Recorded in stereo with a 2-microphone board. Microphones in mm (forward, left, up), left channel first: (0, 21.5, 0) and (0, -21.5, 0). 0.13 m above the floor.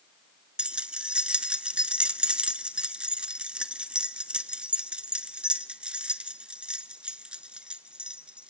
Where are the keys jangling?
25° right (ahead or behind), 1.0 m.